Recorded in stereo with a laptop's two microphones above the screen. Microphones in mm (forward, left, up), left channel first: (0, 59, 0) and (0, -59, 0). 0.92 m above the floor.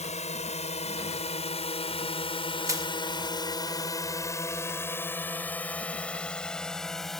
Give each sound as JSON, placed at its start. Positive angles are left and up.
{"t": 0.0, "sound": "a drone", "side_deg": 80}
{"t": 2.7, "sound": "crushing", "side_deg": -25}